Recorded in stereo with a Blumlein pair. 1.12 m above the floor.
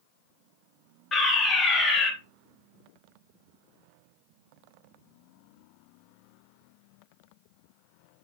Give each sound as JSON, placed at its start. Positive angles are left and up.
{"t": 1.1, "sound": "a fire alarm", "azimuth_deg": 20, "distance_m": 3.5}